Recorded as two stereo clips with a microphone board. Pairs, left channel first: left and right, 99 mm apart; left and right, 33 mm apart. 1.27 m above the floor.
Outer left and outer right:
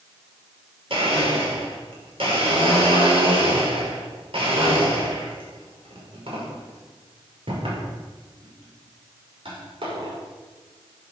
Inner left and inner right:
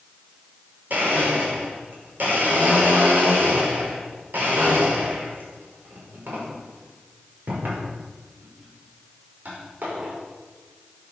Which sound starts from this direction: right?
A blender, at 0.9 s.